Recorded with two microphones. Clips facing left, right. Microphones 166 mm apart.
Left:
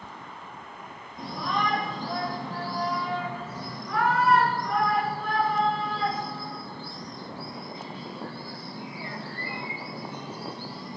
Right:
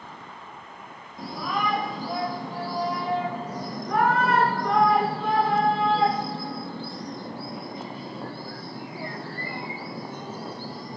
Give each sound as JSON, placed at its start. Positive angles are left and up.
{"t": 1.2, "sound": "a shout", "side_deg": -5, "distance_m": 2.5}